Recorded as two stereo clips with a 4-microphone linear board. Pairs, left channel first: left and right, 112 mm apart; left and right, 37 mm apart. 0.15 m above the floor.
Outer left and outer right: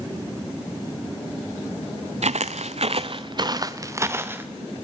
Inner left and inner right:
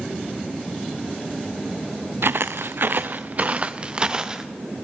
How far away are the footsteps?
About 0.6 m.